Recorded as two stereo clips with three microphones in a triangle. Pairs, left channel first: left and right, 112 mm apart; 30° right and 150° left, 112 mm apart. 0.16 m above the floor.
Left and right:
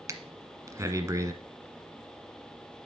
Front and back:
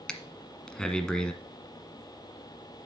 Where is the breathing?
105° right, 1.2 m.